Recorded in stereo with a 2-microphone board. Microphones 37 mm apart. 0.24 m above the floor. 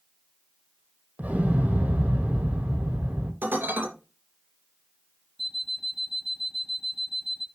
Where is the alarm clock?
5° right (ahead or behind), 0.8 m.